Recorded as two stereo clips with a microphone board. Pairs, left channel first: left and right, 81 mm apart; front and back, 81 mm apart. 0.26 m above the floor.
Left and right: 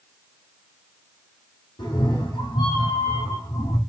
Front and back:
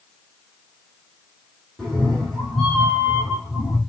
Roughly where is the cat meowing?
Left.